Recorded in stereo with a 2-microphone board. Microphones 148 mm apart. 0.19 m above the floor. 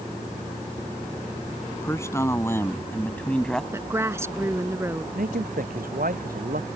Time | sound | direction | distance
1.7 | a man speaking | 20° left (ahead or behind) | ?
3.7 | a woman speaking | 15° right (ahead or behind) | ?
5.2 | a man speaking | 70° right (ahead or behind) | ?